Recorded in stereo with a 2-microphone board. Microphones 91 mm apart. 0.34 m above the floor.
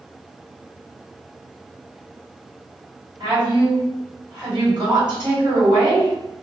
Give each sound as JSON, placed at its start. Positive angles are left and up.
{"t": 3.2, "sound": "a woman speaking", "side_deg": -50, "distance_m": 1.9}